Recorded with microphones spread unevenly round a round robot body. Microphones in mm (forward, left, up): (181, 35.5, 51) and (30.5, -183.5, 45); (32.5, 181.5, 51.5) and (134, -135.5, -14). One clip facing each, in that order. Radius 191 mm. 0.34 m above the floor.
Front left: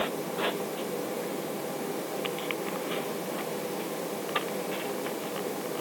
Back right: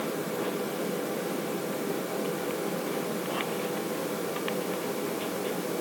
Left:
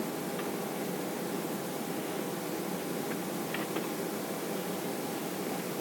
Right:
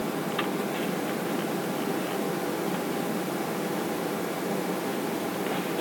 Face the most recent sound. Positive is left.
No sound to turn to.